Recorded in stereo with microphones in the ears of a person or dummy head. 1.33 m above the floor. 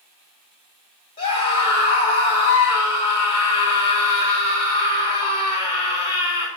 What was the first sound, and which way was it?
A scream, 30° left (ahead or behind).